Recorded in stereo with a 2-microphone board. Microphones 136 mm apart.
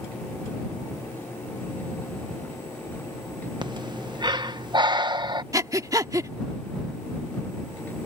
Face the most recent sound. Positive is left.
turn(degrees=-25)  # may be behind; listen again after turning